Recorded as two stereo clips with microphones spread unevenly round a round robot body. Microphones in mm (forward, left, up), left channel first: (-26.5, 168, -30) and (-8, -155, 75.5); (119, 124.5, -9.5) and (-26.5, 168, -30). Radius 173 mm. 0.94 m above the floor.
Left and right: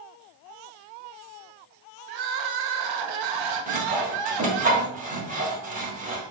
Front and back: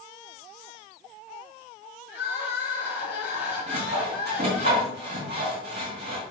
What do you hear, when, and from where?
2.1 s crying: 55° right, 0.9 m
3.7 s sawing: 150° right, 2 m